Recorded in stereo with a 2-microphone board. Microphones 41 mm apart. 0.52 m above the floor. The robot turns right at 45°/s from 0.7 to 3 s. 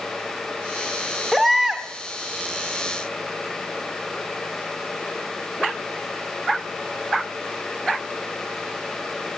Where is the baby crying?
Centre (ahead or behind), 1.0 m; by 1.9 s 20° right (ahead or behind), 1.0 m.